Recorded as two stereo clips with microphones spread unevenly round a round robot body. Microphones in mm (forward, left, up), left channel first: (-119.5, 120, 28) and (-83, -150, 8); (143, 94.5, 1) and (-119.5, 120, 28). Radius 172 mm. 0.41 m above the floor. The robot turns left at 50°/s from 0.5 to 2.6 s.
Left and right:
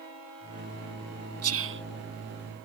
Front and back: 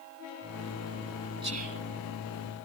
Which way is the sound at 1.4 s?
110° right.